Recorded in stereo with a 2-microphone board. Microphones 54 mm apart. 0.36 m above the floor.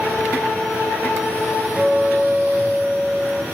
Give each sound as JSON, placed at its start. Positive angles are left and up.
{"t": 1.8, "sound": "a guitar", "side_deg": -20, "distance_m": 1.2}